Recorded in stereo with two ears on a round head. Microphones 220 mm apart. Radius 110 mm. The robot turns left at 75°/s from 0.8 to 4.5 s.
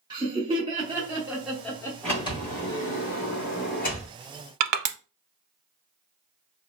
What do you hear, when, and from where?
0.1 s laughter: 20° right (ahead or behind), 0.7 m; by 1.9 s 10° left (ahead or behind), 0.7 m
2.0 s a sliding door: 175° left, 1.2 m; by 4.1 s 20° left, 1.2 m
4.6 s crushing: 70° right (ahead or behind), 0.5 m